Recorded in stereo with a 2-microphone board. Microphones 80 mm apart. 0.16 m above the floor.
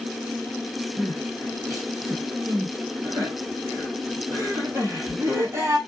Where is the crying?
35° right (ahead or behind), 1.2 m.